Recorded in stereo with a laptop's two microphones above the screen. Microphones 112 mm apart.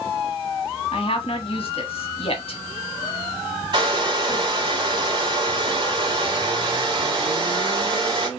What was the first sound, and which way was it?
A woman speaking, 55° left (ahead or behind).